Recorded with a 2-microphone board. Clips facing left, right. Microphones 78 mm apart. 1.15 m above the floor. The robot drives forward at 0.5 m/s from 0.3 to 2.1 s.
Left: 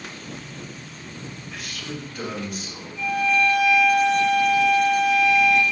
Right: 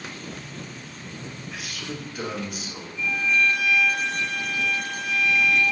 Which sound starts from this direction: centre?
A man speaking, at 1.5 s.